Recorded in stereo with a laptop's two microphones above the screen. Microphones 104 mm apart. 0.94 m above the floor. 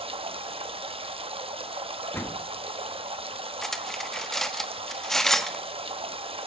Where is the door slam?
25° left (ahead or behind), 1.4 m.